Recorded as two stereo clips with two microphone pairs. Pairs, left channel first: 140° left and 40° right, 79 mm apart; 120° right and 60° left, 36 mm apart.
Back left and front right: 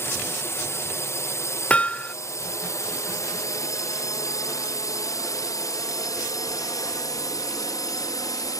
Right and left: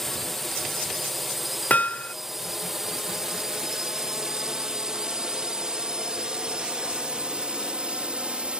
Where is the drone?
160° left; by 8.6 s 115° left.